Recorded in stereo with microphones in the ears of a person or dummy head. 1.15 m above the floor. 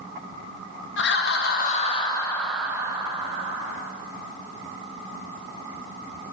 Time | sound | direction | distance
1.0 | laughter | 55° left (ahead or behind) | 0.8 m